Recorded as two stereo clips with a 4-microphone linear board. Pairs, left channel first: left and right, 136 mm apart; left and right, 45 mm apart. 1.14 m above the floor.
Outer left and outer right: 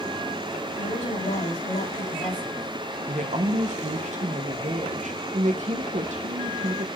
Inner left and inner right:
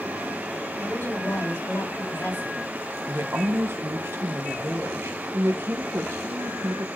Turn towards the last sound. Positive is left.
turn(degrees=-60)  # may be behind; listen again after turning